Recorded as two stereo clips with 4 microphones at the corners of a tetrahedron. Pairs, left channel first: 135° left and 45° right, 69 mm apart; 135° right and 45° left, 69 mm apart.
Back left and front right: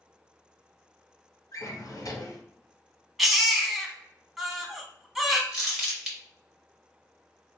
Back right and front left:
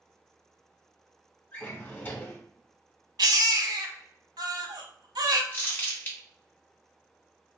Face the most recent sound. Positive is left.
turn(degrees=-120)